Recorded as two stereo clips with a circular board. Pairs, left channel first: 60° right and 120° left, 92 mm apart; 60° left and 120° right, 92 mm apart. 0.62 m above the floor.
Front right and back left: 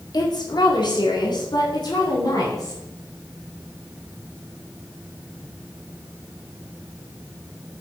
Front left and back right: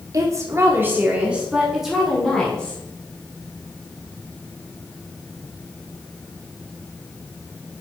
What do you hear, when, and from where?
0.1 s a woman speaking: 80° right, 1.8 m; by 2.8 s 20° right, 2.5 m